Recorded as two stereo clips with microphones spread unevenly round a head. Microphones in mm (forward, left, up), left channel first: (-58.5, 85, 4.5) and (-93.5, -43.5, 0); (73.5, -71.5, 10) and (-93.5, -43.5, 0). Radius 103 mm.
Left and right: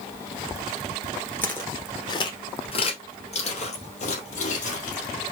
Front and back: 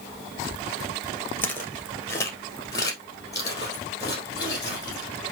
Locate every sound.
1.4 s footsteps: 30° left, 1.2 m; by 5.1 s 60° left, 2.5 m